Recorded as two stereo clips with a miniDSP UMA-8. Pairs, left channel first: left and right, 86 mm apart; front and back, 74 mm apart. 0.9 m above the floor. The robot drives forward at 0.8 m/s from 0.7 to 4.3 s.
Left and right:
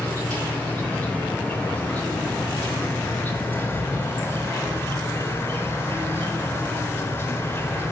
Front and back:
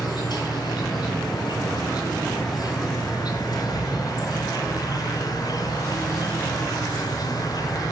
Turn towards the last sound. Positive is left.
turn(degrees=30)